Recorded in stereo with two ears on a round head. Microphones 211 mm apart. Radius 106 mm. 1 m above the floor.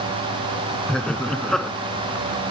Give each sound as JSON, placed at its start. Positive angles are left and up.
{"t": 0.9, "sound": "laughter", "side_deg": 5}